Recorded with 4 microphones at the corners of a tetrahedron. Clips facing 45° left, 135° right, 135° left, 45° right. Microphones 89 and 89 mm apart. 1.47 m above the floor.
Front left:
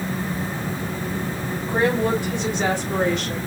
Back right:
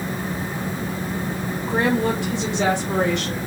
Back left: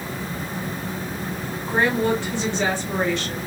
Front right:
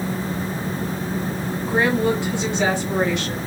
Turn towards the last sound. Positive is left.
turn(degrees=-120)